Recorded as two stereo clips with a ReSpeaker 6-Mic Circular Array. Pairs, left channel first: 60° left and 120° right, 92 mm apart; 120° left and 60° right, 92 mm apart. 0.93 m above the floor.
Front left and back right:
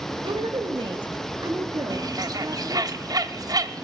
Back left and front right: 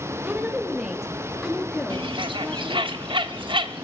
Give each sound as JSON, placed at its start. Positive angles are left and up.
{"t": 0.2, "sound": "a woman speaking", "azimuth_deg": -125, "distance_m": 1.3}
{"t": 1.9, "sound": "a bird", "azimuth_deg": -75, "distance_m": 0.9}